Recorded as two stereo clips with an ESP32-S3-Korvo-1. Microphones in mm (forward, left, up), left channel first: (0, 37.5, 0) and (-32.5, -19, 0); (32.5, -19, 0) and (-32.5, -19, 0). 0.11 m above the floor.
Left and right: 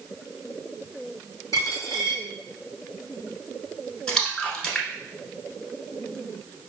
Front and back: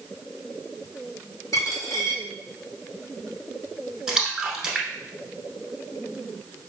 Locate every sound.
1.5 s a dropped coin: 25° left, 2 m
4.1 s a splash: 115° left, 0.9 m